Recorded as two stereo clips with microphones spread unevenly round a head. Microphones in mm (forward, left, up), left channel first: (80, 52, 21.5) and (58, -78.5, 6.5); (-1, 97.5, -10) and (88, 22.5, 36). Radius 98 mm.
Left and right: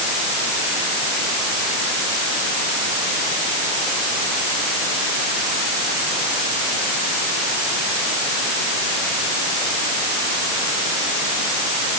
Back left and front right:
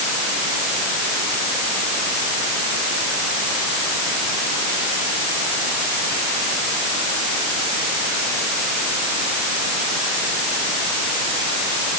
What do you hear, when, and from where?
Only background noise.